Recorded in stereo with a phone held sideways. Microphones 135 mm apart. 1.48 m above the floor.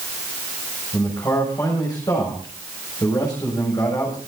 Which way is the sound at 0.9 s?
30° left (ahead or behind).